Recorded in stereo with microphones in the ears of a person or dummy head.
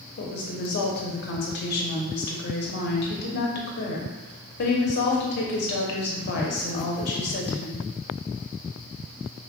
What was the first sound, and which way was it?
A woman speaking, 55° left (ahead or behind).